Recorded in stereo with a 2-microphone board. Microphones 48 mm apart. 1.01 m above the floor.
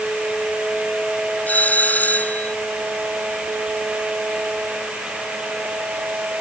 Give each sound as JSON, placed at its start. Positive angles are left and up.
{"t": 1.5, "sound": "a doorbell", "side_deg": 35}